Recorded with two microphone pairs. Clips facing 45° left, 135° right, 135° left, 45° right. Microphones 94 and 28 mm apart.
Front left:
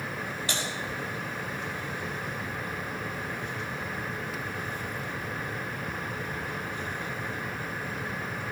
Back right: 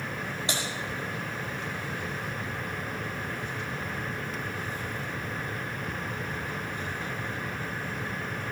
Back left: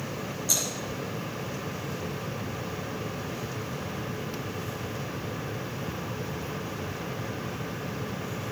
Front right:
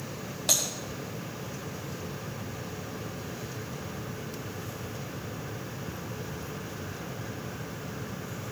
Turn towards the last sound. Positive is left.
turn(degrees=-65)